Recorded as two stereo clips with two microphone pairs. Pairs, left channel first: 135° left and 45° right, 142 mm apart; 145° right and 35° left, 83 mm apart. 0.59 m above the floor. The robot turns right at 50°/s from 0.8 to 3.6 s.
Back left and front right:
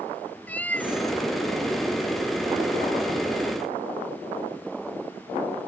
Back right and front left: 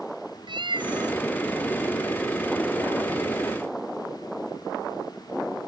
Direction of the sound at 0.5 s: 55° left.